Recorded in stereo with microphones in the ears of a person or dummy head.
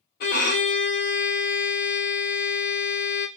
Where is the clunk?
No clunk in this recording.